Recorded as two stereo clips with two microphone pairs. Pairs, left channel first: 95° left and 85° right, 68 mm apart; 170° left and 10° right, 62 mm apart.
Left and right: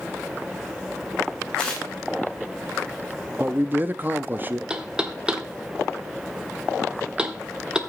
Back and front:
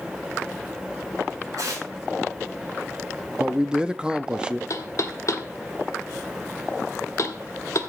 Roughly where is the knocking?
Behind.